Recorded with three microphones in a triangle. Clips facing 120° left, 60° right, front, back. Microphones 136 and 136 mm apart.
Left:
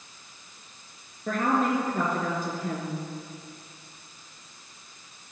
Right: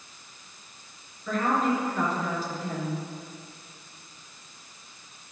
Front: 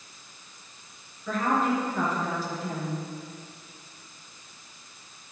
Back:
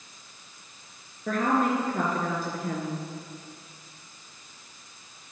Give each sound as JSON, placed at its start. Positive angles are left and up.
{"t": 1.3, "sound": "a woman speaking", "azimuth_deg": 155, "distance_m": 3.5}